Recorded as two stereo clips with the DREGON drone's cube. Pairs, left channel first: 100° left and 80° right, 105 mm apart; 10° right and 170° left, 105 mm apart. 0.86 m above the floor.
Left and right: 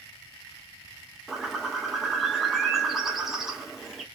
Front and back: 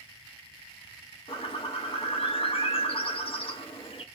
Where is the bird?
10° left, 0.6 m.